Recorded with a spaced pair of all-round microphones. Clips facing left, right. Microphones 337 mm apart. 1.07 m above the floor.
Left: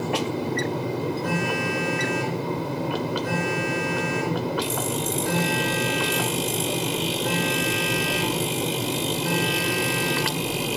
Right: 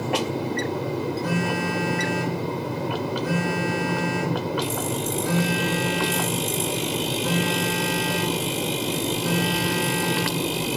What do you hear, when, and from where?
1.2 s a phone buzzing: 5° right (ahead or behind), 5.5 m